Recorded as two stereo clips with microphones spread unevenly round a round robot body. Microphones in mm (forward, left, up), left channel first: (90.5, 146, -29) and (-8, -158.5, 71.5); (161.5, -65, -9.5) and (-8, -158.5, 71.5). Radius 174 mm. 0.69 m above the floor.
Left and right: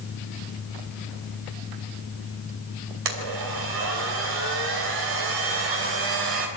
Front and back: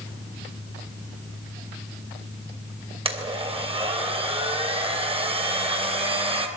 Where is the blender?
85° right, 3 m.